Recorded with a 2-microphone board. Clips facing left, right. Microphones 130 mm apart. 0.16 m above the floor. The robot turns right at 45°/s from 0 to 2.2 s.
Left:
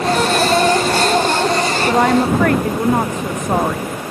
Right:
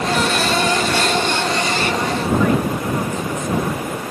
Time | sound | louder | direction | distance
1.9 | a woman speaking | left 9 dB | 85° left | ?